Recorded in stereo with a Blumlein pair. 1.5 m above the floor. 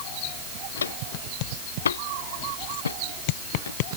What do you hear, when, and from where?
0.8 s footsteps: 70° left